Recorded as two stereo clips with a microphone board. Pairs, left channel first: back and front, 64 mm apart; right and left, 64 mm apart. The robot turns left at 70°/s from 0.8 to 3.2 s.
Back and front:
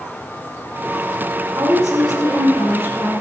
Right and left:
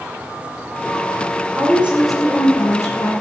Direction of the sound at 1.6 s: 40° left.